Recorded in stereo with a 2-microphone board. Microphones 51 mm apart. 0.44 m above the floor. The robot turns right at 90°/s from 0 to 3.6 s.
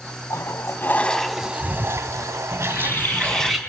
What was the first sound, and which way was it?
A toilet flushing, 90° left.